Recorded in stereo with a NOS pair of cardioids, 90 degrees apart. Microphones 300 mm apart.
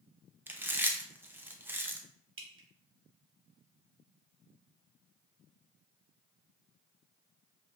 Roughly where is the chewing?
Ahead.